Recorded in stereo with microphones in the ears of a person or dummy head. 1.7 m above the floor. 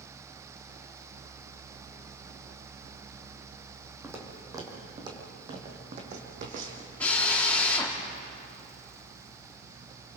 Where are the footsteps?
10° right (ahead or behind), 4.5 m; by 6.9 s 50° right (ahead or behind), 4.5 m.